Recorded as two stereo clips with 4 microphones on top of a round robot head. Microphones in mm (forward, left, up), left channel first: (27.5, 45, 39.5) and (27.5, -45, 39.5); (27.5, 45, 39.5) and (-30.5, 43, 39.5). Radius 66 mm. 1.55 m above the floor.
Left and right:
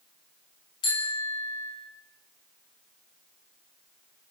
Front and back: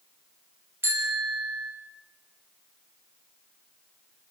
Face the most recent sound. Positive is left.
turn(degrees=130)